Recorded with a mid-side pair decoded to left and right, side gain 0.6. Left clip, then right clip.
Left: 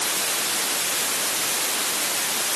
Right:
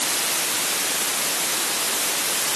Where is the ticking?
No ticking in this recording.